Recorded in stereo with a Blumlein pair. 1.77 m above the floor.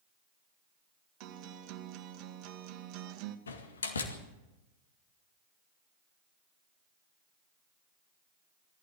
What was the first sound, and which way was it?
A guitar, 40° right.